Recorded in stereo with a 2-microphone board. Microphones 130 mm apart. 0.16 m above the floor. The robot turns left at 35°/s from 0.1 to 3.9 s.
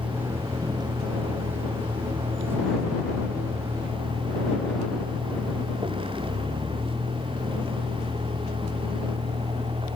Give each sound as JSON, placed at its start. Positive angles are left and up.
{"t": 0.0, "sound": "a vehicle", "side_deg": -10}